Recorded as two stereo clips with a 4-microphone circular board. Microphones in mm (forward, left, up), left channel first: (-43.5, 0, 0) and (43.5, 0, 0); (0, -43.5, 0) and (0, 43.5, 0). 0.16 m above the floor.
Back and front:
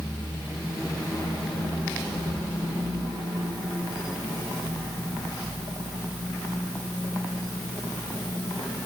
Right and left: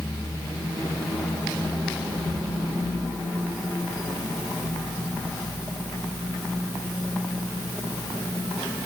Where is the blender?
No blender in this recording.